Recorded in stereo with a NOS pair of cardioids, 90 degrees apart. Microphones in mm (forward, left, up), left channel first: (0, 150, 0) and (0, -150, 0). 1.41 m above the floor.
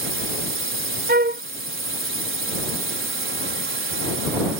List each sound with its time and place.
0.0 s a drone: 45° right
1.1 s a flute: 30° right